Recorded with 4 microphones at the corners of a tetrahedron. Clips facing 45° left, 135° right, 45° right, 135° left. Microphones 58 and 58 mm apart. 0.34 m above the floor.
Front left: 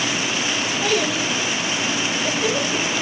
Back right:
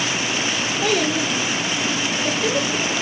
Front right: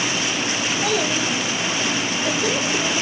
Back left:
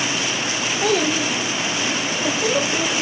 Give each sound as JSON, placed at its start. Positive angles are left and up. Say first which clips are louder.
{"t": 0.8, "sound": "a child speaking", "louder": "back right 2 dB, back left 4 dB", "azimuth_deg": 145, "distance_m": 4.0}